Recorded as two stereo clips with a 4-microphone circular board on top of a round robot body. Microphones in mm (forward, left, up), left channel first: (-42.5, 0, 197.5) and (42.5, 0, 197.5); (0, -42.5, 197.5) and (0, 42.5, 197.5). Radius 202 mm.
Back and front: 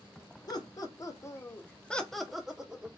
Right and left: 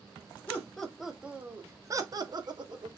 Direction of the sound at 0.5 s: 160° right.